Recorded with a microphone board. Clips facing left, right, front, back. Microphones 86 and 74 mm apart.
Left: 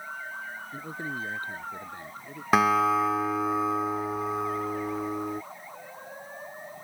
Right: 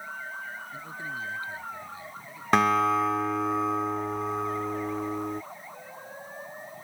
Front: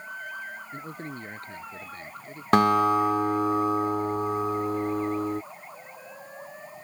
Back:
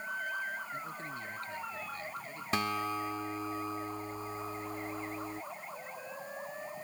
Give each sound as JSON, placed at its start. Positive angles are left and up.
{"t": 0.7, "sound": "a man speaking", "azimuth_deg": 45}
{"t": 2.5, "sound": "a guitar", "azimuth_deg": 5}